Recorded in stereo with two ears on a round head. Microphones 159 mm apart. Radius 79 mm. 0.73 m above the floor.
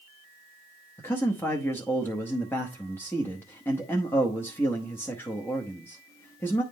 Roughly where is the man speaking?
Centre.